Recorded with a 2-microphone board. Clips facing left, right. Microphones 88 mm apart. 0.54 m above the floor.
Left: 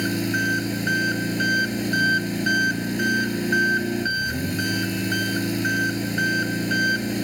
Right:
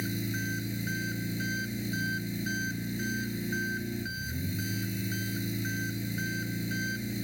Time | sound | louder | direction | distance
0.0 | an engine running | left 11 dB | 70° left (ahead or behind) | ?